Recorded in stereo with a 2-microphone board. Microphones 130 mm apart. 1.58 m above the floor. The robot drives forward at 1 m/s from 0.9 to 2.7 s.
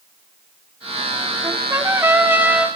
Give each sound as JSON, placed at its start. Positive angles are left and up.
{"t": 1.4, "sound": "a trumpet", "side_deg": -25, "distance_m": 1.1}